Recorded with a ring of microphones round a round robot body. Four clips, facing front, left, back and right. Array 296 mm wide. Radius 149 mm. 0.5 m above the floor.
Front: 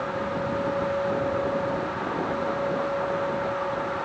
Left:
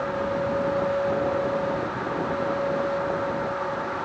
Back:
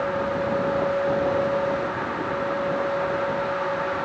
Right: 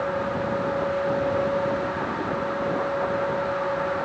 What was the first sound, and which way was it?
Only background noise.